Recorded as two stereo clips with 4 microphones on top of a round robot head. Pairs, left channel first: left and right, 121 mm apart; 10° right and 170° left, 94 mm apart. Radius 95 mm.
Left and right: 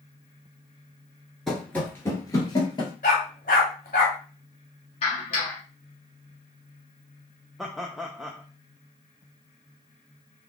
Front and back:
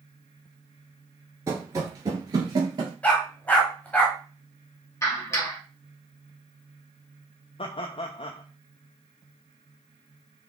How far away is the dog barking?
About 1.3 m.